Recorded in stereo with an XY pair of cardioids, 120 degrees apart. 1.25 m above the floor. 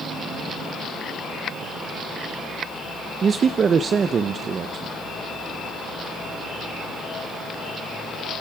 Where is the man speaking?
40° right, 0.9 m.